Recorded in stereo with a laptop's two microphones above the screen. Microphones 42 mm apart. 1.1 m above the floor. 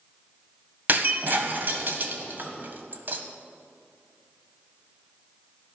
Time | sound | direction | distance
0.9 | breaking glass | 50° right (ahead or behind) | 1.3 m